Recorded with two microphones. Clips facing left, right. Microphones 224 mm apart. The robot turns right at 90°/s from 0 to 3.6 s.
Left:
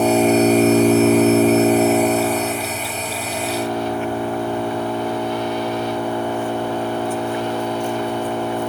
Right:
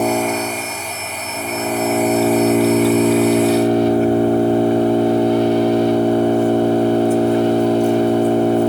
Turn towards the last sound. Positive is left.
turn(degrees=-40)